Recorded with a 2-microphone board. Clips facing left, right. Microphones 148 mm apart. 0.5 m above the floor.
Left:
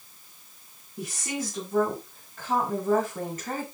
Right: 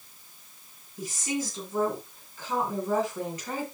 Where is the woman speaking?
70° left (ahead or behind), 5.5 m; by 3.6 s 50° left (ahead or behind), 5.5 m.